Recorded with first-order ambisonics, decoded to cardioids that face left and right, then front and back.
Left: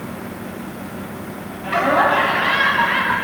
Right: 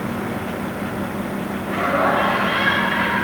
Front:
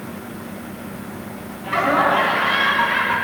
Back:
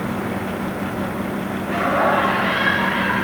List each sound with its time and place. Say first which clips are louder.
1.6 s laughter: left 4 dB, front 2 dB; 85° left, 8.5 m; by 3.1 s 90° left, 10.5 m